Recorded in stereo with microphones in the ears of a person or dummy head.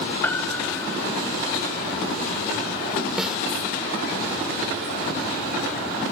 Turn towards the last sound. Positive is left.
turn(degrees=-5)  # may be behind; listen again after turning